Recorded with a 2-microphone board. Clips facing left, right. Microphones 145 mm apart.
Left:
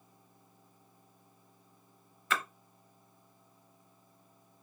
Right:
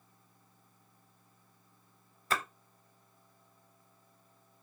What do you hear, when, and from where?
2.3 s a splash: 35° right (ahead or behind), 0.6 m